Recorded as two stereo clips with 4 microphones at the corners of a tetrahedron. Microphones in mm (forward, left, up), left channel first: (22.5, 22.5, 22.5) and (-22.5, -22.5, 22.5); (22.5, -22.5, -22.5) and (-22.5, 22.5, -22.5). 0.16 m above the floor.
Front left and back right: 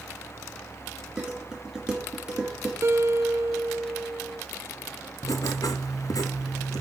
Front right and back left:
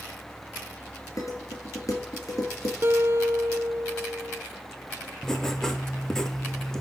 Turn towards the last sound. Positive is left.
turn(degrees=35)